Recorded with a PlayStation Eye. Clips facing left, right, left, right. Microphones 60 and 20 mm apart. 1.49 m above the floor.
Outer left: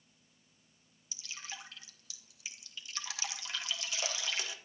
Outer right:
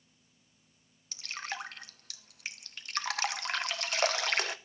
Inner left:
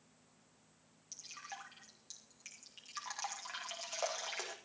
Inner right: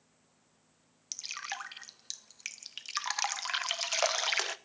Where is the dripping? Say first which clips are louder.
Outer right 8 dB, inner right 10 dB; 55° right (ahead or behind), 1.1 m.